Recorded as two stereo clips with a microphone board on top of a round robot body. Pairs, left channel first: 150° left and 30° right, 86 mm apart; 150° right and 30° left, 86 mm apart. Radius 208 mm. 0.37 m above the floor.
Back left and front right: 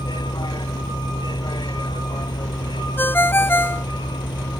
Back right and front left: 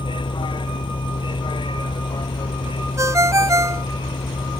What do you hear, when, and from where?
0.0 s a vehicle: 175° right
3.0 s a ringtone: 85° left